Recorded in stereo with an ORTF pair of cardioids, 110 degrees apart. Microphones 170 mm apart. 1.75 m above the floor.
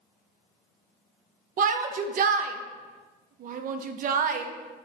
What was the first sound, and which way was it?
A shout, 55° right.